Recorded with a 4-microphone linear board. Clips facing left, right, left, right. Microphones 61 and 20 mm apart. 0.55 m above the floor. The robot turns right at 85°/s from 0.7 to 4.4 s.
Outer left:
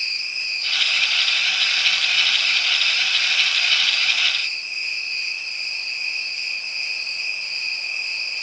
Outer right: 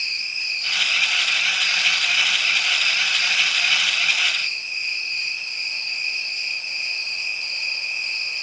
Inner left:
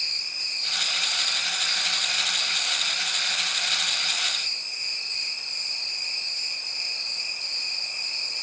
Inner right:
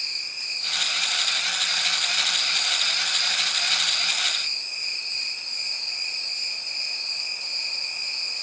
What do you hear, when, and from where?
0.0 s an insect: 55° left, 1.6 m; by 8.4 s 10° left, 1.6 m